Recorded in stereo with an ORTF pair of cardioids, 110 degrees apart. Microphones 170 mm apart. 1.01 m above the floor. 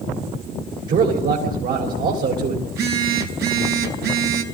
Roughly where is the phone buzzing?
Ahead right.